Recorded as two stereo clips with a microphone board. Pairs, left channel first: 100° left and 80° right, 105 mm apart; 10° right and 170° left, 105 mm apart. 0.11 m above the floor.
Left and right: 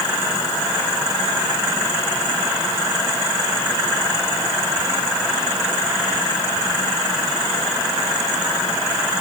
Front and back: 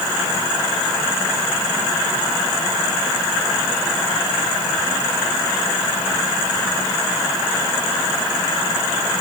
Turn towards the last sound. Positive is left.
No sound to turn to.